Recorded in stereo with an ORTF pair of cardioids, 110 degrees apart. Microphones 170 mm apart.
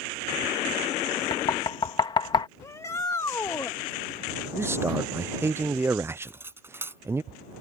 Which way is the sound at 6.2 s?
15° right.